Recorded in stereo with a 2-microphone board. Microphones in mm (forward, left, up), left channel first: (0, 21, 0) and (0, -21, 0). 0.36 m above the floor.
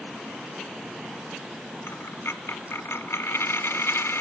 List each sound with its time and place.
1.9 s a dropped coin: 85° left, 0.9 m